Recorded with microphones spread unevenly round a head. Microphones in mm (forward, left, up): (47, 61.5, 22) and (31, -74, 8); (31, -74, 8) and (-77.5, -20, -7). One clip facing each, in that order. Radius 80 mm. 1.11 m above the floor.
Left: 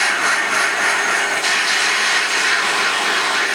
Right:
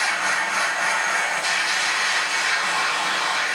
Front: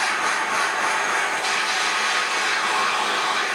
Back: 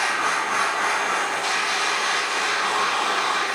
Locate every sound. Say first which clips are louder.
0.0 s a machine running: left 4 dB, even; 60° left, 1.8 m